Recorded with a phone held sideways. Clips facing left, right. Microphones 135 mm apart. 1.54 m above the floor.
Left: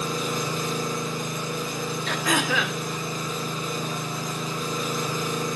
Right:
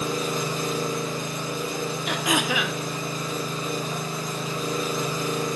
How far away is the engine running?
About 5 m.